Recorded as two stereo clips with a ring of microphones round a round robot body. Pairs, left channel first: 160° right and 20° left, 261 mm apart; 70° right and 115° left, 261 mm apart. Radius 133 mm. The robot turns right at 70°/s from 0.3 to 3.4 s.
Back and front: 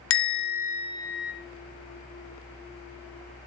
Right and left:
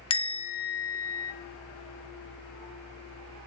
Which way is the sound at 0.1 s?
130° right.